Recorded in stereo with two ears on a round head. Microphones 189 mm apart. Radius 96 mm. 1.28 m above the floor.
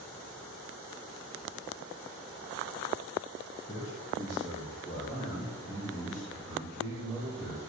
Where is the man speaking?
30° left (ahead or behind), 7 m; by 7.6 s 10° left (ahead or behind), 6.5 m.